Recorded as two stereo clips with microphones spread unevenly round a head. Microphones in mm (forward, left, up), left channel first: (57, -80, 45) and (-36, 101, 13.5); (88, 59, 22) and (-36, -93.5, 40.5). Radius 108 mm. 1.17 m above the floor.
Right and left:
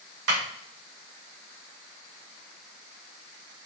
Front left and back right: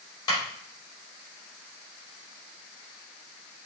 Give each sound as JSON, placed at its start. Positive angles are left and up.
{"t": 0.3, "sound": "a clap", "azimuth_deg": 125, "distance_m": 3.0}